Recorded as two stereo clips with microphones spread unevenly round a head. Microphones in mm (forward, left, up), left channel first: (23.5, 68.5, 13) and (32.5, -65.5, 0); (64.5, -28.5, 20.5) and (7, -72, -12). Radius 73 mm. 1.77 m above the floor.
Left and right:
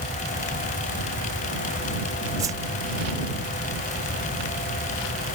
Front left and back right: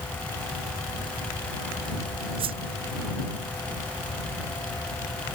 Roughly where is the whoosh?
Behind right.